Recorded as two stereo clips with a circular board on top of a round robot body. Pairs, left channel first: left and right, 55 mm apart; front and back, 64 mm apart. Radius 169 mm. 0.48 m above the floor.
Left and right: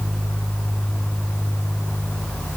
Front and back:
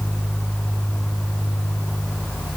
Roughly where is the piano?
I don't hear a piano.